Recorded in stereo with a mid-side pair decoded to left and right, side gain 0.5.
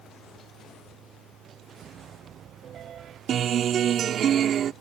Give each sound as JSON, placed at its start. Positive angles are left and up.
{"t": 0.0, "sound": "a fan", "azimuth_deg": -65}
{"t": 1.8, "sound": "a piano", "azimuth_deg": -55}
{"t": 3.3, "sound": "a guitar", "azimuth_deg": -55}